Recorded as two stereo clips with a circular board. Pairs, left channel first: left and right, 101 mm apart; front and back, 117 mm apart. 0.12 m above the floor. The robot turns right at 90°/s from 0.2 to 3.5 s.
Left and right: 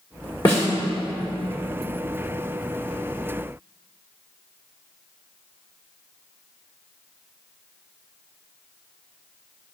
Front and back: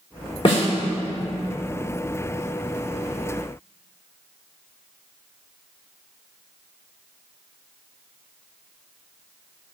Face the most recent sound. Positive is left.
turn(degrees=-45)